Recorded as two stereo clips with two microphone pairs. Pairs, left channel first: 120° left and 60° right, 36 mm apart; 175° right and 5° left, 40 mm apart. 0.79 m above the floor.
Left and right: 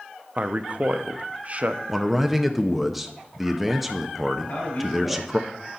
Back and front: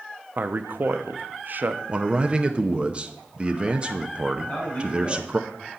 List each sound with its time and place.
0.4 s a man speaking: 15° right, 0.7 m
1.9 s a man speaking: 20° left, 0.7 m
4.4 s a man speaking: 150° left, 4.5 m